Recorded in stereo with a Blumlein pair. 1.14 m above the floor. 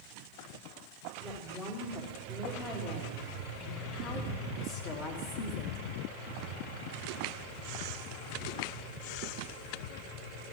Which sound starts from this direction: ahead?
A woman speaking, at 1.2 s.